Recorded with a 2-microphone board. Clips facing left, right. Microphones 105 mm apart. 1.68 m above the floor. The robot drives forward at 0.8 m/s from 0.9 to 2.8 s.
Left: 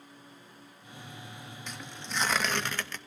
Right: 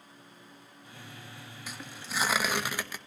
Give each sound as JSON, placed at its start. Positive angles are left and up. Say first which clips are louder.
{"t": 1.7, "sound": "tearing paper", "louder": "even", "side_deg": -5, "distance_m": 1.7}